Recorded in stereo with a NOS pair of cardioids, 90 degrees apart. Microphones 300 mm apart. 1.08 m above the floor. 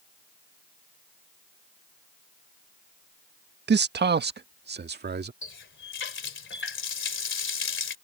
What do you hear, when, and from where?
3.7 s a man speaking: 35° right; by 5.3 s 30° right
5.4 s a running tap: 40° left